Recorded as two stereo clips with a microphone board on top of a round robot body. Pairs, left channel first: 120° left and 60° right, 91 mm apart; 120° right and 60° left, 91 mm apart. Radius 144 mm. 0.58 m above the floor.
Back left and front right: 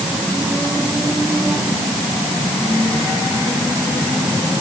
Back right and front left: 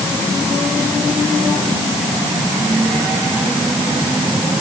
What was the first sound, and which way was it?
Only background noise.